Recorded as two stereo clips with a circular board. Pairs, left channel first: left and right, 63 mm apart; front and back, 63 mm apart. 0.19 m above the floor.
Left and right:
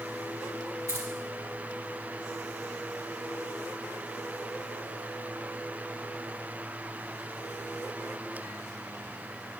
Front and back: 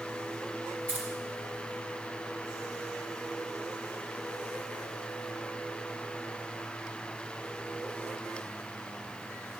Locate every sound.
0.9 s keys jangling: 120° right, 2 m